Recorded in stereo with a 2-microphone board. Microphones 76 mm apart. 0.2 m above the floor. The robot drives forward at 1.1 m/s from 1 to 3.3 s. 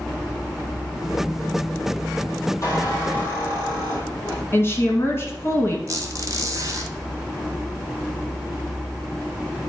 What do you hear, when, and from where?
2.6 s a squeak: 40° left (ahead or behind), 3.5 m; by 4.4 s 35° left (ahead or behind), 4.5 m
4.5 s a woman speaking: 35° left (ahead or behind), 1.6 m
5.9 s a squeak: 40° right (ahead or behind), 1.5 m